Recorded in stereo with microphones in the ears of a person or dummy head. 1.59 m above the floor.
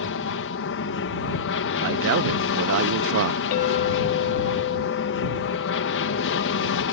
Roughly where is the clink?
Left.